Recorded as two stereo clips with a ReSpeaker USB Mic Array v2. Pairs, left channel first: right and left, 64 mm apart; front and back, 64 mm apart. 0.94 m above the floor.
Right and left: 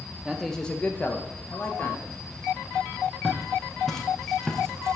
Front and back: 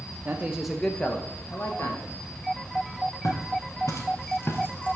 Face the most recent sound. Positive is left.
turn(degrees=-5)